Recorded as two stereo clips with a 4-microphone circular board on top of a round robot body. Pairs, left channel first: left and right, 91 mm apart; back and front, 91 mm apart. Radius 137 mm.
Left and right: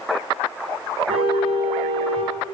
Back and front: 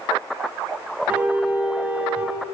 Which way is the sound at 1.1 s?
75° right.